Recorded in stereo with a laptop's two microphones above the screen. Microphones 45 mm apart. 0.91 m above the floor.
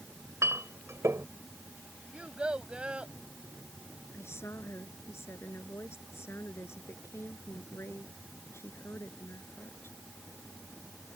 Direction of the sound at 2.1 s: 25° right (ahead or behind).